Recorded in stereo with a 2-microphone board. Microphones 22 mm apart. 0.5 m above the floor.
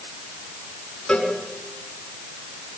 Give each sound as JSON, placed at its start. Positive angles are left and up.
{"t": 1.1, "sound": "a cowbell", "side_deg": 45, "distance_m": 5.5}